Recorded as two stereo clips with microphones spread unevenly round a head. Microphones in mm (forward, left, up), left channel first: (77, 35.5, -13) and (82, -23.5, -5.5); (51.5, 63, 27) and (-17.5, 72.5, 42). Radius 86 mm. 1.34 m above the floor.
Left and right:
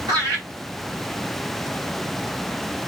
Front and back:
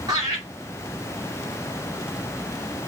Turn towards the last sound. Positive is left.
turn(degrees=-125)